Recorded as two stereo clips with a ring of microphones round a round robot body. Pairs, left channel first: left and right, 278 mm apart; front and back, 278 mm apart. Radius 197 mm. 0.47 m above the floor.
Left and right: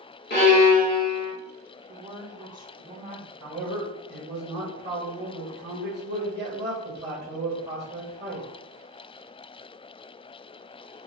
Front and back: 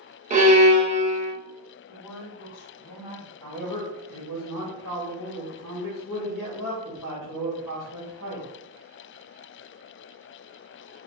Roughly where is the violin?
Behind left.